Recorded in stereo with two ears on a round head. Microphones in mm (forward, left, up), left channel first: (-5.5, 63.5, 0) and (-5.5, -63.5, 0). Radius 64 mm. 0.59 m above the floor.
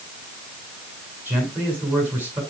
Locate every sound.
1.2 s a man speaking: 15° right (ahead or behind), 8 m